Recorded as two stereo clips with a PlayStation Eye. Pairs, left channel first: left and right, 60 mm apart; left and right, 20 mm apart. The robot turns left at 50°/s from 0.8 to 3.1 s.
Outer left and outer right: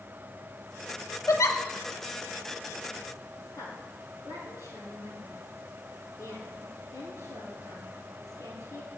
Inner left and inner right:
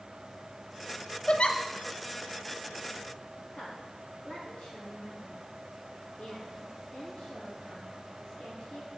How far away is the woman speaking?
About 6.5 m.